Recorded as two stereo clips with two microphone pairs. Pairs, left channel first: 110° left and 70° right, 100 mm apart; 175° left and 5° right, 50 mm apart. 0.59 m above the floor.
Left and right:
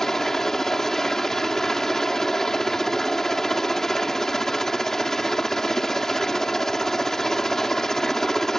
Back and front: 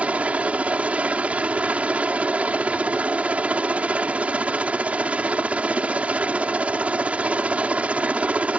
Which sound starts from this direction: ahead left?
A helicopter, at 0.0 s.